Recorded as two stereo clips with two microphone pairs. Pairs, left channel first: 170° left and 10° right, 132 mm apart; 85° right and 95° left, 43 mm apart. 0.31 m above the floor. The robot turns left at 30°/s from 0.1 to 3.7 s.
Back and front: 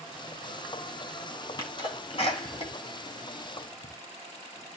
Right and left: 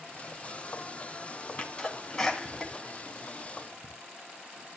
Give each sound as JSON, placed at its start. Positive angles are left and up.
{"t": 1.6, "sound": "a sneeze", "azimuth_deg": -140, "distance_m": 2.5}